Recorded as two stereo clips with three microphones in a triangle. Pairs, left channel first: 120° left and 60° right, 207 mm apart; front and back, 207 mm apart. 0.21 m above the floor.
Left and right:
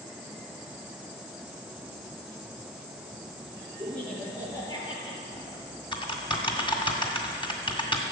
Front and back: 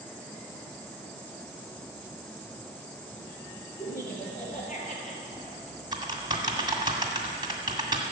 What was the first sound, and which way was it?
Laughter, 35° left.